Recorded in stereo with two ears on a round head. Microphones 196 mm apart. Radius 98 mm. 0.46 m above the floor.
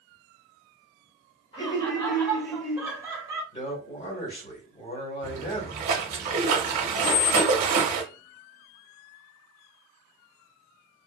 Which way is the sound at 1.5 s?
25° left (ahead or behind).